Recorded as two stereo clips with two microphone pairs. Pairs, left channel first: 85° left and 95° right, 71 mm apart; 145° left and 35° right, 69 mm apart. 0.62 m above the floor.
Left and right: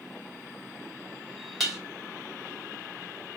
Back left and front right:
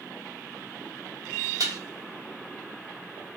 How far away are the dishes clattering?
About 0.8 m.